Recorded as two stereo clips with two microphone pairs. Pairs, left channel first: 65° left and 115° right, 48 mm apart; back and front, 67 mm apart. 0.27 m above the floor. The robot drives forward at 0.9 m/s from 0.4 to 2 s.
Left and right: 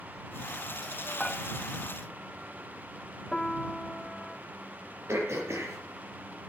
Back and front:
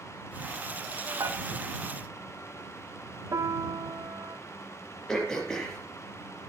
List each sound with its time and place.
1.2 s dishes clattering: 20° right, 1.8 m
3.3 s a piano: 10° right, 0.8 m
5.1 s throat clearing: 100° right, 5 m